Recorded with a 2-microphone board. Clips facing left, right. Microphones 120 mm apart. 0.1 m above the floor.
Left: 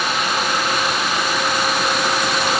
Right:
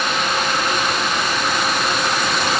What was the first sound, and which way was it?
Only background noise.